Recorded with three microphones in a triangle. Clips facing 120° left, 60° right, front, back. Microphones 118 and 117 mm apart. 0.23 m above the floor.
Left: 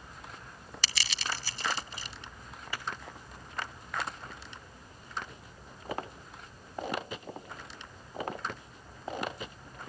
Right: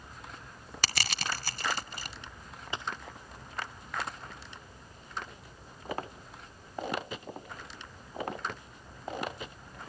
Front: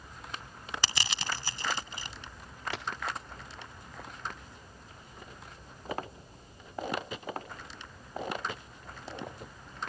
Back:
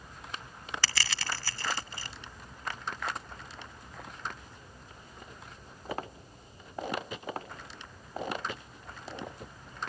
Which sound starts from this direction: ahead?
A dropped coin, at 2.7 s.